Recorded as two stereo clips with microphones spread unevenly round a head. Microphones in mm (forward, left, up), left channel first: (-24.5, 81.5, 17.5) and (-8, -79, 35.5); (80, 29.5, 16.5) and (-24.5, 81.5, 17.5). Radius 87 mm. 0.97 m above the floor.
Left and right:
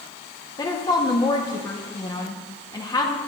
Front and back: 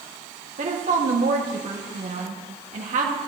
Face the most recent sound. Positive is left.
turn(degrees=160)